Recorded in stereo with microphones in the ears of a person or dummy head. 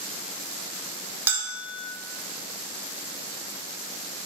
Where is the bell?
5° right (ahead or behind), 0.6 m.